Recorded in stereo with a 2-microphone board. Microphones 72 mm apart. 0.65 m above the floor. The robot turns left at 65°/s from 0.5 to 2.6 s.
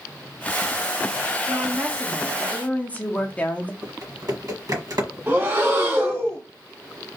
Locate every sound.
1.5 s a woman speaking: 135° right, 0.9 m; by 3.7 s 150° left, 0.9 m
3.8 s typing on a keyboard: 65° right (ahead or behind), 1.2 m
5.3 s breathing: 35° right (ahead or behind), 2 m